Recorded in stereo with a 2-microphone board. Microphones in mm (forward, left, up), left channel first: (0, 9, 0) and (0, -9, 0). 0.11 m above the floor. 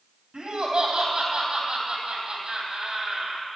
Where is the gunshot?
I don't hear a gunshot.